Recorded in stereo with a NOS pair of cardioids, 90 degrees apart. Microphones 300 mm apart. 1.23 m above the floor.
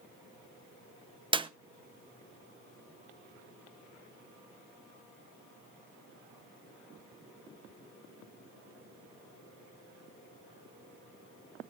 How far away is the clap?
About 0.7 m.